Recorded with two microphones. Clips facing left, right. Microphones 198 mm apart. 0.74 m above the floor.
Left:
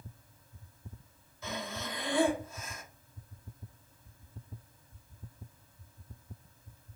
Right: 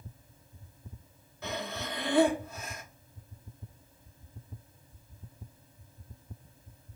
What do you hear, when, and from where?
1.4 s breathing: 65° right (ahead or behind), 0.8 m